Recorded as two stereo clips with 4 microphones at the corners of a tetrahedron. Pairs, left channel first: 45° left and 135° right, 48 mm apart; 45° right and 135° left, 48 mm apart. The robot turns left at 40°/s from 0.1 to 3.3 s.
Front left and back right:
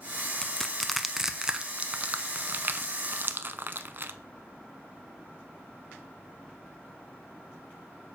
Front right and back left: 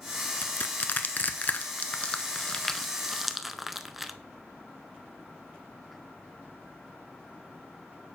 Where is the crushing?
25° right, 0.5 m; by 4.1 s 140° right, 0.5 m.